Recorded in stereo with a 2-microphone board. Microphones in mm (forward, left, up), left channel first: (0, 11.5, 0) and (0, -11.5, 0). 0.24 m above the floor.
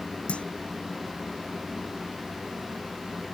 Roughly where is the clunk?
Left.